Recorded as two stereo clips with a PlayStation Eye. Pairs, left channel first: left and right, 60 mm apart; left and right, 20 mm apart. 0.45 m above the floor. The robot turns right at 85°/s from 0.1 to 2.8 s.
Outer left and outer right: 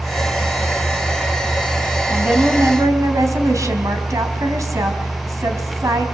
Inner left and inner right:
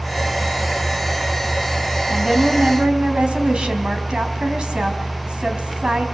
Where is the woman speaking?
165° right, 4 m; by 6.0 s 105° right, 4 m.